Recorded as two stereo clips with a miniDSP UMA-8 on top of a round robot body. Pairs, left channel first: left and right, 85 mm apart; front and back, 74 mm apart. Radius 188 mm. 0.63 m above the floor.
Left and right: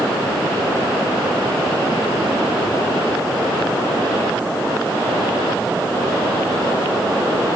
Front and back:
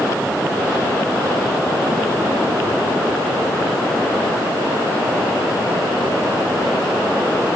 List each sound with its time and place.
Only background noise.